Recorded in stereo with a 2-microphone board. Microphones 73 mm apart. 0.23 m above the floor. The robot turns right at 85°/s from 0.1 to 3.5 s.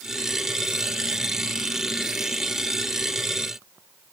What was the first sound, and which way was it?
Only background noise.